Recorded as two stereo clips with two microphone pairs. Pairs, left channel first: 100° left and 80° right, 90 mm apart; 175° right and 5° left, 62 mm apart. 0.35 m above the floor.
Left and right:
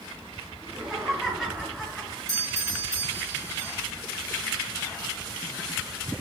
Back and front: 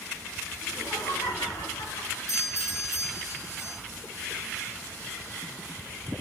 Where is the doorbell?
135° right, 7 m.